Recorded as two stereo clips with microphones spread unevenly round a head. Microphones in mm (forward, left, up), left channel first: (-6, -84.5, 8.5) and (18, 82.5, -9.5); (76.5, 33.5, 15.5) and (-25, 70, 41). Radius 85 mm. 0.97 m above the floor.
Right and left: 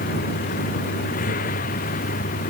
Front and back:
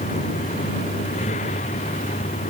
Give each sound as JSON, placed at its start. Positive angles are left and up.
{"t": 0.0, "sound": "a vehicle", "azimuth_deg": -55}